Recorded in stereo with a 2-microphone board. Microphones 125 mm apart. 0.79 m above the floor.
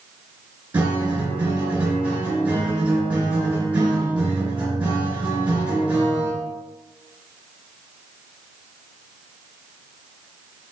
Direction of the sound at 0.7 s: 10° right (ahead or behind).